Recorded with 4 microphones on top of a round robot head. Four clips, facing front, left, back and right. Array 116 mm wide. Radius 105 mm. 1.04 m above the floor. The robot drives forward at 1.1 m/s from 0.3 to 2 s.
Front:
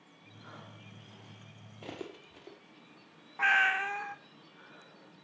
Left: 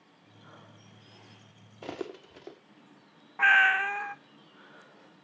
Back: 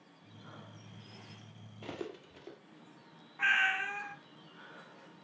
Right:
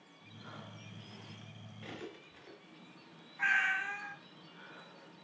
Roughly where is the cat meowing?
Ahead left.